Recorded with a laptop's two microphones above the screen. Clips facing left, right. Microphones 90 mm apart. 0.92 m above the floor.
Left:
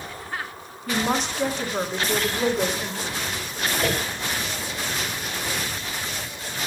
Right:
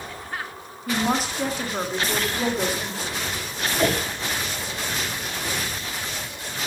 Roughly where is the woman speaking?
Centre.